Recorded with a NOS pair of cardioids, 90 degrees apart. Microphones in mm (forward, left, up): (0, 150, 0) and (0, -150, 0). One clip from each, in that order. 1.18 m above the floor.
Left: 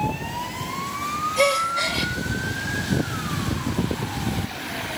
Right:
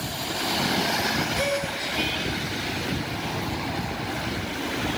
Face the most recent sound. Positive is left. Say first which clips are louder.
# left 6 dB
turn(degrees=45)